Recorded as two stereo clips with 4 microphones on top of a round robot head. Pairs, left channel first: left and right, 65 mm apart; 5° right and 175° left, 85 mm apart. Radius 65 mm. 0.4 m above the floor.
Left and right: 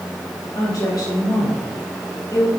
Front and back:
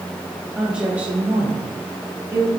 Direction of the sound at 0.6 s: 95° left.